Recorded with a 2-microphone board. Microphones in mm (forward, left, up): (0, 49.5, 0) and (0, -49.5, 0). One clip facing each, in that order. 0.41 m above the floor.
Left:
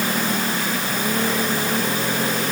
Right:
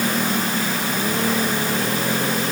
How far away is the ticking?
No ticking in this recording.